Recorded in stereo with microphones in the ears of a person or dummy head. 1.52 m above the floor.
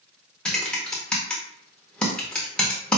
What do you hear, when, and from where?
0.5 s typing on a keyboard: 5° left (ahead or behind), 0.7 m